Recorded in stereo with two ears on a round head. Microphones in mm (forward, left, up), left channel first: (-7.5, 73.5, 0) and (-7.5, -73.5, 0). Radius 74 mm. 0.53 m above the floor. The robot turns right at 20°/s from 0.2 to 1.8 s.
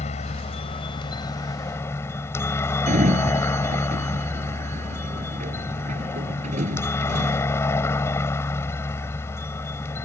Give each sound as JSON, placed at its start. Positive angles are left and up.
{"t": 0.0, "sound": "a helicopter", "azimuth_deg": 130}
{"t": 2.9, "sound": "a sliding door", "side_deg": -45}